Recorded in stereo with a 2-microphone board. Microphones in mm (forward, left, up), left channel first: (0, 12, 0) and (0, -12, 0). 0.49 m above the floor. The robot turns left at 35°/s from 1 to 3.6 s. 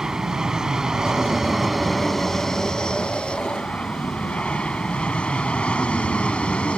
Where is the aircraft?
155° right; by 6.8 s 115° left.